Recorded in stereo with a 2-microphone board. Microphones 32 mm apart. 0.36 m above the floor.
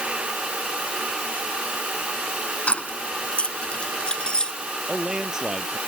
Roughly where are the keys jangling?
Left.